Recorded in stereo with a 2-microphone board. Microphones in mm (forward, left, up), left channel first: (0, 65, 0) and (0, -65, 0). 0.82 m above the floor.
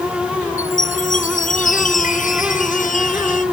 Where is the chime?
80° left.